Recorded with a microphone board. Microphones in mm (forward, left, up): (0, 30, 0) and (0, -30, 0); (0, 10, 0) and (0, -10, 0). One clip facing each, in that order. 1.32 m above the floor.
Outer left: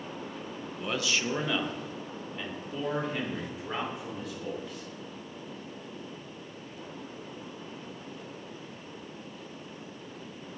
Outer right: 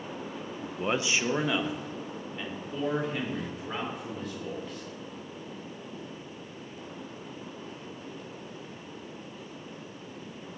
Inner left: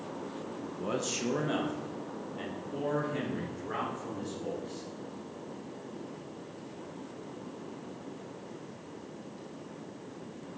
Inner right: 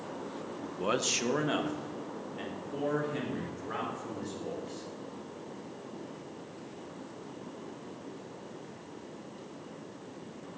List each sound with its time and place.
0.6 s a man speaking: 45° right (ahead or behind), 0.7 m; by 4.9 s 5° left (ahead or behind), 5.5 m